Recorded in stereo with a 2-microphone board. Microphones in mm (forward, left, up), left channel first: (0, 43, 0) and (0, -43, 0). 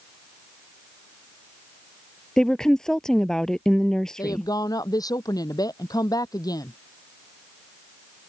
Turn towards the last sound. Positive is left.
turn(degrees=45)  # may be behind; listen again after turning